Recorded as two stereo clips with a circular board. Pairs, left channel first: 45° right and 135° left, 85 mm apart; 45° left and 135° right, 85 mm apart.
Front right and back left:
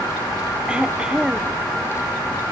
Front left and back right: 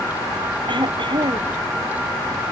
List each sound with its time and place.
0.7 s throat clearing: 150° right